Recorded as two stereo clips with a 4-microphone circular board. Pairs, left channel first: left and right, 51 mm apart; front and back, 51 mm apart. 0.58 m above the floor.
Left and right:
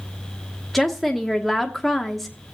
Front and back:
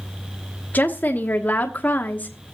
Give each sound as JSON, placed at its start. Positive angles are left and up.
{"t": 0.7, "sound": "a woman speaking", "azimuth_deg": 5, "distance_m": 1.1}